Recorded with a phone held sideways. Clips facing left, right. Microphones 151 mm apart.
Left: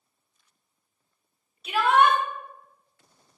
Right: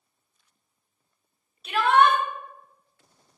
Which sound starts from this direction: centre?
A shout, at 1.6 s.